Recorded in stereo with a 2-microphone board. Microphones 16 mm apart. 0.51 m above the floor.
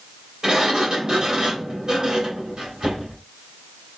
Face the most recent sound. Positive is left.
turn(degrees=-40)  # may be behind; listen again after turning